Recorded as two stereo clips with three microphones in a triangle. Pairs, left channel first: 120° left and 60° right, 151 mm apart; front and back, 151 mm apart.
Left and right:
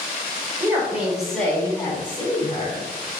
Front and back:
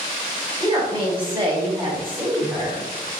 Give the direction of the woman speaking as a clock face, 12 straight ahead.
4 o'clock.